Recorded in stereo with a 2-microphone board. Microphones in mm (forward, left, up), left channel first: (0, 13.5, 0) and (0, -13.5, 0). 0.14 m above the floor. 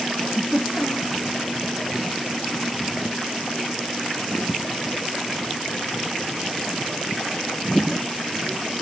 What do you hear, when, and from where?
0.2 s a giggle: 20° right (ahead or behind), 1.5 m